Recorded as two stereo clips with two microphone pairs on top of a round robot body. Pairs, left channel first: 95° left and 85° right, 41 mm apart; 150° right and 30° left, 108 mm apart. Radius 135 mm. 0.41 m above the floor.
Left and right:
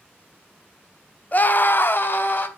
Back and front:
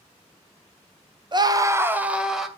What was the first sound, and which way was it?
A scream, 60° left.